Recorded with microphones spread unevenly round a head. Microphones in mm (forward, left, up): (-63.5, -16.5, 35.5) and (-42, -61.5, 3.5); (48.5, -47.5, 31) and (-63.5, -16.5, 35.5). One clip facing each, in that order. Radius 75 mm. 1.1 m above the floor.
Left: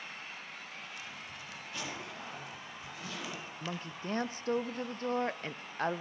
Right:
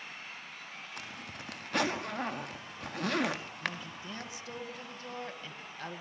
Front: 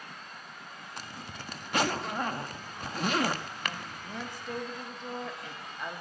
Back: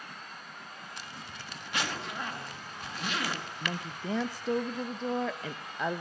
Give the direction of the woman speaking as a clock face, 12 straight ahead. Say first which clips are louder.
Right 1 dB, back 3 dB; 6 o'clock.